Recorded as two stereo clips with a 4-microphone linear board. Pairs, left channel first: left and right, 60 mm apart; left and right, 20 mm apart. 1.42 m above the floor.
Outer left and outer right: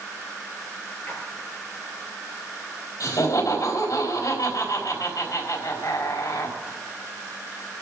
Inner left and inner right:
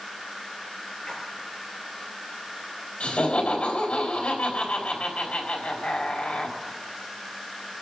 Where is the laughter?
70° left (ahead or behind), 3.5 m.